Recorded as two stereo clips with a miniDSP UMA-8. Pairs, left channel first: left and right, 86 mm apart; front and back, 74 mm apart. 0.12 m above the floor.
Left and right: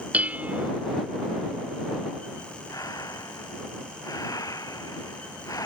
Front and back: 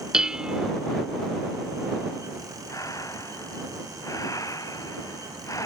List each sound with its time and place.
0.1 s dishes clattering: 120° right
2.7 s breathing: 45° left